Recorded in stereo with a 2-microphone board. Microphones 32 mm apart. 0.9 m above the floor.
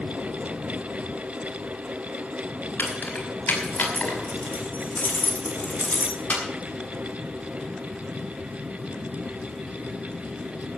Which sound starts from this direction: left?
Keys jangling, at 2.8 s.